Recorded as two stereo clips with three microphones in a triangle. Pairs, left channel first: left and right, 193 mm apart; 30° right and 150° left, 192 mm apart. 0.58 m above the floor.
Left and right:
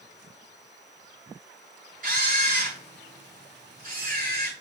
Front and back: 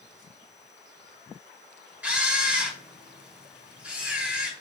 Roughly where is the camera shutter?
Behind right.